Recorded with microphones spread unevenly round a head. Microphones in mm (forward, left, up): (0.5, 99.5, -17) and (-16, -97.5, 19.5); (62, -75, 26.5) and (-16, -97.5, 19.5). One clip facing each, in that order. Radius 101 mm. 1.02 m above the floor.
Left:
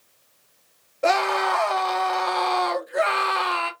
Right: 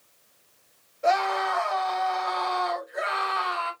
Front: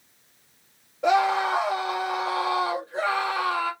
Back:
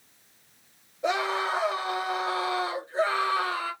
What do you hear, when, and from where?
1.0 s a scream: 75° left, 1.4 m